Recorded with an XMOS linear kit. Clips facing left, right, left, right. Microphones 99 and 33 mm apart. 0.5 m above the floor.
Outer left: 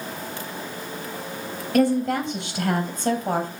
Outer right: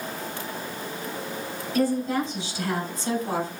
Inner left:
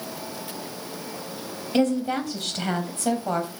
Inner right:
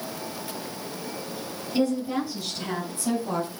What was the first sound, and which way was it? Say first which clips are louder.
A woman speaking: outer left 4 dB, inner left 2 dB; 70° left (ahead or behind).